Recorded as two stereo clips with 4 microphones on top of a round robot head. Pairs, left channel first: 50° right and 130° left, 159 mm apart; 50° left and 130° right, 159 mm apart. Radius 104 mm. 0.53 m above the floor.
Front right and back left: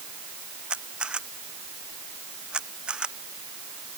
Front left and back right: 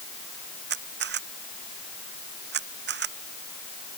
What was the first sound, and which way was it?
A camera shutter, 145° right.